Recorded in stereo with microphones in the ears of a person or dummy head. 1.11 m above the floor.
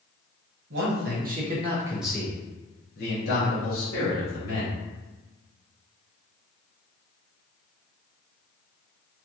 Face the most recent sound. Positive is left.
turn(degrees=70)  # may be behind; listen again after turning